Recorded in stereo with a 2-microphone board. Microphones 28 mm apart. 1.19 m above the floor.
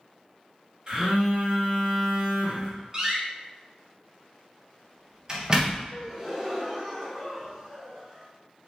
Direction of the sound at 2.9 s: 25° right (ahead or behind).